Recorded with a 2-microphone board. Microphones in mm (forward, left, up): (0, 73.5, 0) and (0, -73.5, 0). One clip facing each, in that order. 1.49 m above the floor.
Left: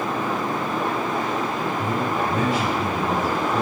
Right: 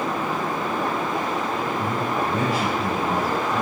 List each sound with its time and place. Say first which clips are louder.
1.8 s a man speaking: left 1 dB; 25° left (ahead or behind), 4.5 m; by 3.6 s 20° left (ahead or behind), 3.5 m